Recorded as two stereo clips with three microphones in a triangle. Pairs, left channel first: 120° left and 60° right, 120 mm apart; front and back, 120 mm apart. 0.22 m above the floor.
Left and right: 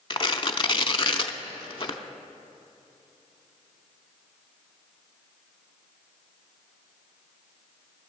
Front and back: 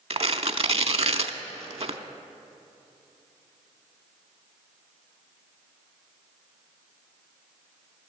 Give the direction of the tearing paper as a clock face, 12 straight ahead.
7 o'clock.